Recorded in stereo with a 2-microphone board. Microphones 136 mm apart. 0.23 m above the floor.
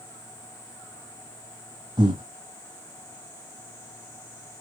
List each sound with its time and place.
2.0 s breathing: 30° right (ahead or behind), 1.4 m